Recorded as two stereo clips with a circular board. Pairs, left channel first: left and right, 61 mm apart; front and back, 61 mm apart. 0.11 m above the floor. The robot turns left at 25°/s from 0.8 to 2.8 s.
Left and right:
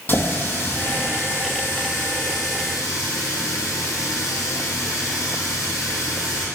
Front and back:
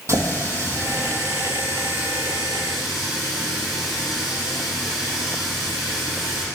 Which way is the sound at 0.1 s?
145° left.